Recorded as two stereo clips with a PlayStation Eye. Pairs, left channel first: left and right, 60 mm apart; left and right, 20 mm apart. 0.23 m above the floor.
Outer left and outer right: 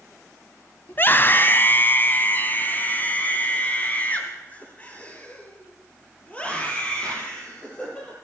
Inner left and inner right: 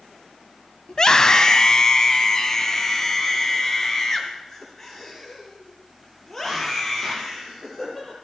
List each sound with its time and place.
0.9 s a scream: 35° left (ahead or behind), 1.3 m; by 8.1 s 20° left (ahead or behind), 6.5 m